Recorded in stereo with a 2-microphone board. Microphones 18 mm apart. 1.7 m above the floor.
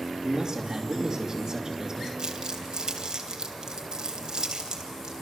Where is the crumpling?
45° right (ahead or behind), 2.5 m.